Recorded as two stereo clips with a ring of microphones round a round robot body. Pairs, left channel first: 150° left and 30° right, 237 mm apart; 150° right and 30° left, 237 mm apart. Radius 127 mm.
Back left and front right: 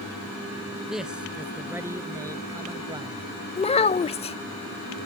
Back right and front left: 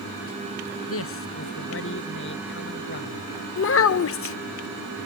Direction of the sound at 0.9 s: 120° right.